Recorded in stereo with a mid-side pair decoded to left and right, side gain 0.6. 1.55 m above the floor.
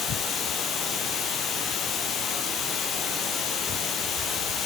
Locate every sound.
0.0 s running water: 50° left, 10 m